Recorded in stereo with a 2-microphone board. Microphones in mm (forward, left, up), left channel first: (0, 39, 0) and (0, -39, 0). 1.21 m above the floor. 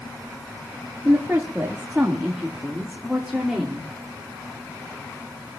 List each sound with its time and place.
1.1 s a woman speaking: 25° right (ahead or behind), 1.6 m; by 3.9 s 5° right (ahead or behind), 3 m